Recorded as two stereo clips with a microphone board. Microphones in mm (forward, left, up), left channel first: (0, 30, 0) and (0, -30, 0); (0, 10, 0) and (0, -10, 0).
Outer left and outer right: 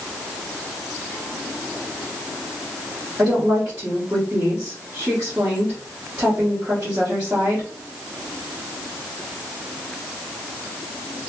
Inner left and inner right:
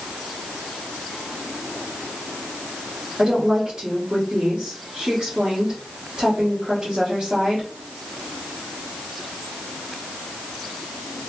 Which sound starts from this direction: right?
A woman speaking, at 3.2 s.